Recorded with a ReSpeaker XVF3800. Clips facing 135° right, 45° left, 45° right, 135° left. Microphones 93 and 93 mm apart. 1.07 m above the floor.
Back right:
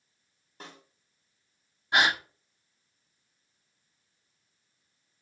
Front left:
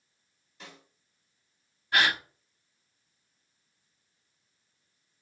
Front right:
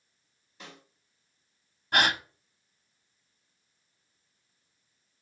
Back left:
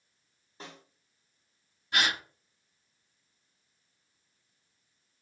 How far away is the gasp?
About 0.8 m.